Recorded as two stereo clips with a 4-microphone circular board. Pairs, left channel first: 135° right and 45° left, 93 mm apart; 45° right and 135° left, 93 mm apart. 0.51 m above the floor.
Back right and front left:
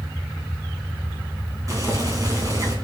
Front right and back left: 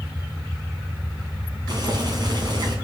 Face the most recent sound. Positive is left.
turn(degrees=95)